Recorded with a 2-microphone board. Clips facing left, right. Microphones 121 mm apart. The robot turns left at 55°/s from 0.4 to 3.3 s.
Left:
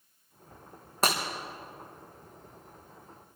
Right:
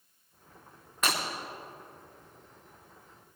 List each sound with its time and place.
1.0 s breaking glass: 35° left (ahead or behind), 4 m; by 1.2 s 30° left (ahead or behind), 4 m